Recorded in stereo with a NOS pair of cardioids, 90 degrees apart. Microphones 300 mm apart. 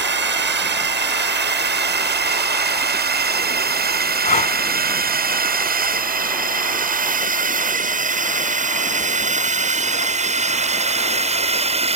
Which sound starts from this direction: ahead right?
A drone, at 0.0 s.